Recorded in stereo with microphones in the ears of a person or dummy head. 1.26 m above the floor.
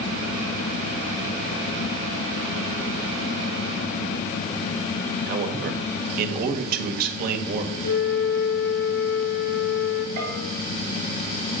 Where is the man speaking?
55° right (ahead or behind), 1.6 m.